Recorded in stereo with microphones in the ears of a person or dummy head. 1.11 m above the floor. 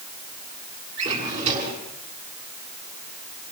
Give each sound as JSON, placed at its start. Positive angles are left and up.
{"t": 1.0, "sound": "a drawer", "side_deg": -40, "distance_m": 6.5}